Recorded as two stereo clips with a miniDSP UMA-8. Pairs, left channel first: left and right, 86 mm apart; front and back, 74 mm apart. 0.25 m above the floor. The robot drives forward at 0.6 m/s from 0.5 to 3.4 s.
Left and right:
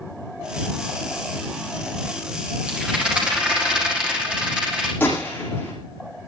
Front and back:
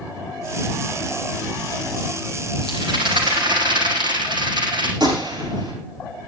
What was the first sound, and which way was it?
A rattle, 170° right.